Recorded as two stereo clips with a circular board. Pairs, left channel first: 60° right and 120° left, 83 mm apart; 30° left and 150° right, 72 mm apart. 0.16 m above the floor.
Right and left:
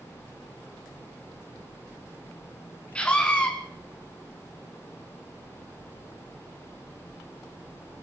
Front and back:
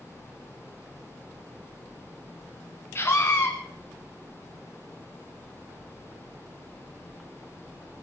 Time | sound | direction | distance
3.0 | a scream | 10° left | 1.3 m